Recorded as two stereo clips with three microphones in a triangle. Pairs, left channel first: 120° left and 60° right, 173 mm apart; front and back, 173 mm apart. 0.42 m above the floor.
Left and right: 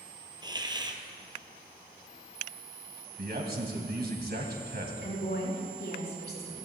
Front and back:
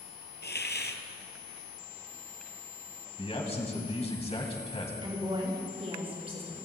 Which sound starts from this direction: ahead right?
A man speaking, at 3.2 s.